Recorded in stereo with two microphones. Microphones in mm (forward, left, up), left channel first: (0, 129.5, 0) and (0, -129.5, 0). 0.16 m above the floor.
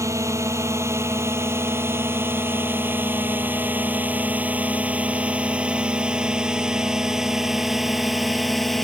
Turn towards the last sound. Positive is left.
turn(degrees=0)  # may be behind; listen again after turning